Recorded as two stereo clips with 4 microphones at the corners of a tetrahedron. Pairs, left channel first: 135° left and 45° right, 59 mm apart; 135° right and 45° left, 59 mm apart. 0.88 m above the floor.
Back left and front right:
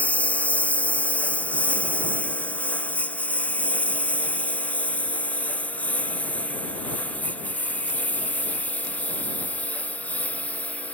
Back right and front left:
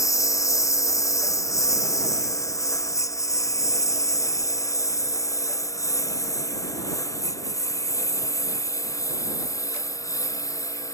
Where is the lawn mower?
155° right.